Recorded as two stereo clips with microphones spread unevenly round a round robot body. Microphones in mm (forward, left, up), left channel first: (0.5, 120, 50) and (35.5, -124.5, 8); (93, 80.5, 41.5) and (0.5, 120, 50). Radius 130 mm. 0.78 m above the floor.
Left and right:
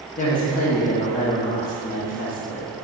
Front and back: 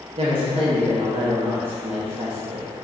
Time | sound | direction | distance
0.2 | a woman speaking | 160° left | 0.5 m